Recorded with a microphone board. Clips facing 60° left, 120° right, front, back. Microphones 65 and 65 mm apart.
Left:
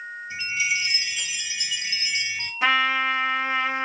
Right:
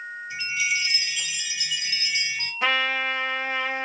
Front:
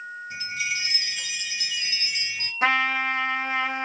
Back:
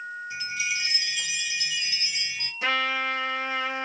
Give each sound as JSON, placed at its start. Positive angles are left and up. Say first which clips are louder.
{"t": 0.3, "sound": "a chime", "louder": "left 1 dB, front 1 dB", "azimuth_deg": 10, "distance_m": 2.0}
{"t": 2.6, "sound": "a trumpet", "louder": "left 3 dB, front 4 dB", "azimuth_deg": -25, "distance_m": 1.1}